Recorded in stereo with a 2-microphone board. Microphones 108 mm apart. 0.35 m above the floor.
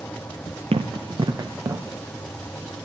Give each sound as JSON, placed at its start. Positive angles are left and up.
{"t": 0.7, "sound": "running footsteps", "side_deg": -60, "distance_m": 1.1}